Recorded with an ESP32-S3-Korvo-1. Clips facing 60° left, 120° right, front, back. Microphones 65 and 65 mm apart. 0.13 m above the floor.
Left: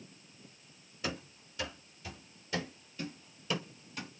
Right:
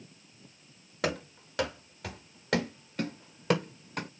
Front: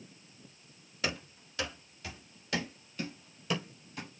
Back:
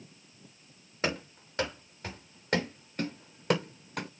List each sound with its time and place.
1.0 s running footsteps: 125° right, 4 m; by 4.1 s 155° right, 1.8 m